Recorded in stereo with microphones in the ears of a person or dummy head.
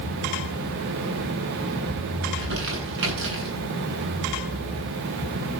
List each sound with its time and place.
2.2 s crumpling: 65° right (ahead or behind), 10 m